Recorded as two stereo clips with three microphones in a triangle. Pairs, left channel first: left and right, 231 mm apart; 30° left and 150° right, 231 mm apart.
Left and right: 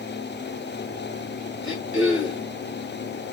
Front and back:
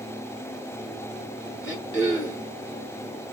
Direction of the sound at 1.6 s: 60° left.